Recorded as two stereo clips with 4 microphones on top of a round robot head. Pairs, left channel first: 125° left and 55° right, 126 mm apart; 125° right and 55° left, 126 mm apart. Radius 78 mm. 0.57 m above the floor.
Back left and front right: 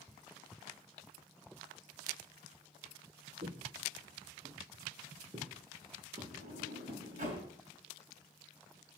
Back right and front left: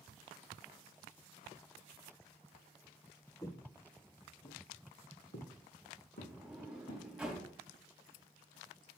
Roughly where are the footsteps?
Ahead right.